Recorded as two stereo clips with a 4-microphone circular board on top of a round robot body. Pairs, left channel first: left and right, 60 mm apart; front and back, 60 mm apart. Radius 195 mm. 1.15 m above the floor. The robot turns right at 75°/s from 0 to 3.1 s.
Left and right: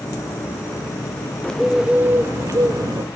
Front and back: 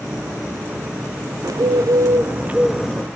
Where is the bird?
165° left, 0.8 m; by 3.0 s 75° right, 0.8 m.